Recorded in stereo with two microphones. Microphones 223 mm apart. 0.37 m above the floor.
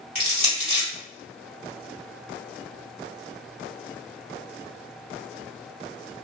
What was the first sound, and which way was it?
Crushing, 40° left (ahead or behind).